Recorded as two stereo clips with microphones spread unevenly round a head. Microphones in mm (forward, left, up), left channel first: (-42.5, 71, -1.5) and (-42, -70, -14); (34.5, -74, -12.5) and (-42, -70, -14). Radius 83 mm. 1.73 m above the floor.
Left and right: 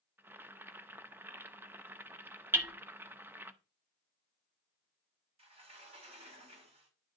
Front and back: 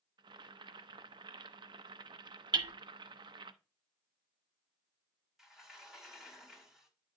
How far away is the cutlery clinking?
I don't hear cutlery clinking.